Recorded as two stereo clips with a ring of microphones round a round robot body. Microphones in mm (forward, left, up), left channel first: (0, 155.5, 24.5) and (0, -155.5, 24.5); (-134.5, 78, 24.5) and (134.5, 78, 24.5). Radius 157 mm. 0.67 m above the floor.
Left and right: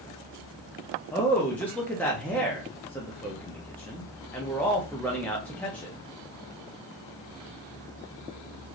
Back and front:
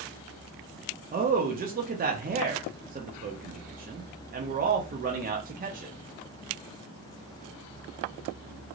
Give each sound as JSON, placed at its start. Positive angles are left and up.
{"t": 1.1, "sound": "a man speaking", "azimuth_deg": 10, "distance_m": 0.6}